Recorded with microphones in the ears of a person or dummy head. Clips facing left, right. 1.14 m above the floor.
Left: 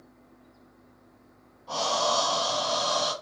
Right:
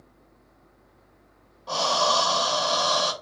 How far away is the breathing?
About 0.8 m.